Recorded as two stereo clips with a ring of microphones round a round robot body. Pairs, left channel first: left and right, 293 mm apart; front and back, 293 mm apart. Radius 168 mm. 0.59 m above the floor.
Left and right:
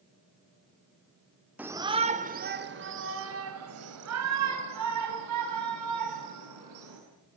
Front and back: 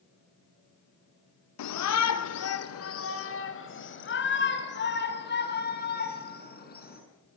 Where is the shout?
5° right, 1.8 m; by 7.0 s 60° right, 8 m.